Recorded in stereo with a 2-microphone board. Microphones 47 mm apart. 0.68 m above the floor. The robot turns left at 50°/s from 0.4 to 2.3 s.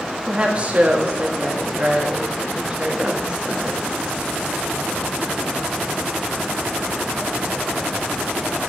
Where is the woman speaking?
40° right, 1.0 m; by 3.8 s 135° right, 1.0 m.